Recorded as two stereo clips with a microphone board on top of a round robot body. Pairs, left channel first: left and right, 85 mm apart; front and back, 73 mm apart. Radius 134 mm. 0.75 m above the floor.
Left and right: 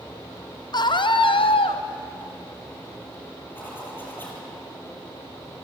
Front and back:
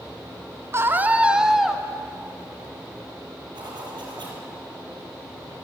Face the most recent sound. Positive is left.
turn(degrees=160)